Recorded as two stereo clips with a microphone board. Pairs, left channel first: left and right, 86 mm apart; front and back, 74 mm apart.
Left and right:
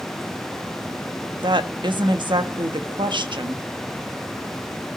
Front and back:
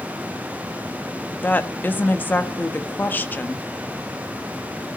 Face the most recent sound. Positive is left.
turn(degrees=-65)